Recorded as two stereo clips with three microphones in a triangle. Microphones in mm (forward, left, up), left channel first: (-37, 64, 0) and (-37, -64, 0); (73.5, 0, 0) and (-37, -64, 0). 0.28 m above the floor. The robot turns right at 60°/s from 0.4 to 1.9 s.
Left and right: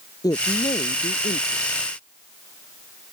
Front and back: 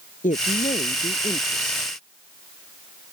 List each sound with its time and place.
0.2 s a woman speaking: 30° left; by 1.9 s 120° left